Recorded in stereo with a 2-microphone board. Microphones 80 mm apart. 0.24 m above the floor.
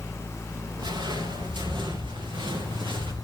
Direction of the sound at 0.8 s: 70° right (ahead or behind).